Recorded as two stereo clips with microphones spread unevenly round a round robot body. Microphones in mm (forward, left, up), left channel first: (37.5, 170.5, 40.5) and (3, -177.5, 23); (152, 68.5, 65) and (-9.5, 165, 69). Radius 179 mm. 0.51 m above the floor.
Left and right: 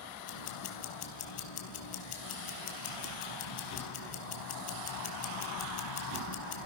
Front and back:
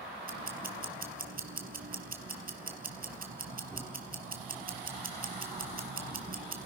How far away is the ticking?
About 3 m.